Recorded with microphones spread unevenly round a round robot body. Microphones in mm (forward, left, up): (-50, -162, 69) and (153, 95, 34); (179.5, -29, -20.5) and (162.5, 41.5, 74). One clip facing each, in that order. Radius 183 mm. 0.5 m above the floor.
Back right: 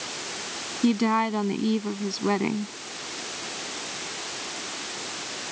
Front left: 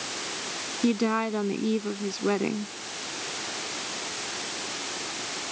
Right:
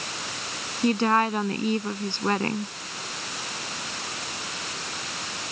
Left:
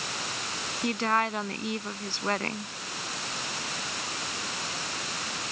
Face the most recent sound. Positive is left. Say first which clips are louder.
# back right 2 dB, right 6 dB
turn(degrees=-55)